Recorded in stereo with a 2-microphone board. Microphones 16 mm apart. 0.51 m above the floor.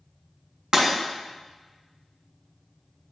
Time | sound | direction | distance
0.7 | breaking glass | 60° right (ahead or behind) | 2.5 m